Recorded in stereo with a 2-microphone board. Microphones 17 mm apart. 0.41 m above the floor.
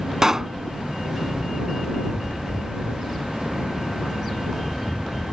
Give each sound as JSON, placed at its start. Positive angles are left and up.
{"t": 0.2, "sound": "a pop", "side_deg": -35}